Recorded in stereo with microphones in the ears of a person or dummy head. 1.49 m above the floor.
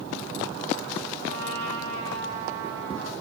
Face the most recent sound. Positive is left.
turn(degrees=-70)  # may be behind; listen again after turning